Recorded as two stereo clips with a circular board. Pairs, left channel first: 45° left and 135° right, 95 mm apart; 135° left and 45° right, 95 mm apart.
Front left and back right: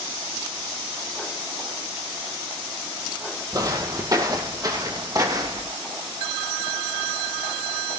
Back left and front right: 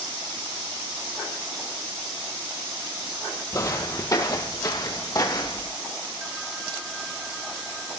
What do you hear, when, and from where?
3.5 s footsteps: straight behind, 2 m